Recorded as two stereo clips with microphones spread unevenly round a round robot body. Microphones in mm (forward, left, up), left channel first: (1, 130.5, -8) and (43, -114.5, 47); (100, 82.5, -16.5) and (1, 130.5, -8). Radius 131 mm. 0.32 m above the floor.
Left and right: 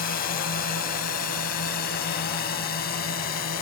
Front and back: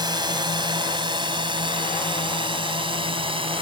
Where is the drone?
120° left; by 3.6 s 135° left.